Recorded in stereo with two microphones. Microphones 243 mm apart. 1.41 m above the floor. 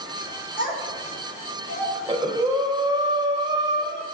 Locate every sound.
0.6 s a child speaking: 35° left (ahead or behind), 2.5 m; by 1.9 s 40° left (ahead or behind), 4 m
1.9 s breathing: 20° right (ahead or behind), 1.4 m